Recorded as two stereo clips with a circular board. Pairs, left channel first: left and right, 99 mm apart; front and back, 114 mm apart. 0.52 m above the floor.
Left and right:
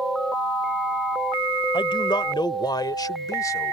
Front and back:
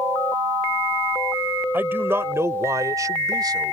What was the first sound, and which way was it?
A man speaking, 110° left.